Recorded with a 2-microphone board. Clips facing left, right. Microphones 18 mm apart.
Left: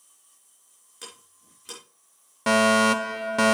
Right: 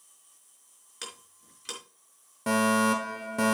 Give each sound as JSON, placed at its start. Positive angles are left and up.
{"t": 1.0, "sound": "ticking", "side_deg": -35, "distance_m": 4.0}
{"t": 2.5, "sound": "a fire alarm", "side_deg": 45, "distance_m": 1.1}